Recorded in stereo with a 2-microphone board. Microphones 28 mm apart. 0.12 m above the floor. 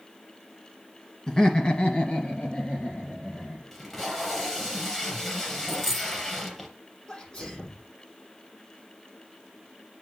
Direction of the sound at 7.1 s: 35° left (ahead or behind).